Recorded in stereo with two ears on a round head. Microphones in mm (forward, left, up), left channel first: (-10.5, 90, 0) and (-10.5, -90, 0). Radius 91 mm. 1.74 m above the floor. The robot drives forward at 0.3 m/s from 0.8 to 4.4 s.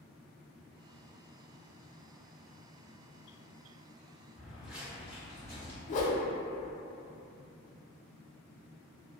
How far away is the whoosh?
About 0.7 m.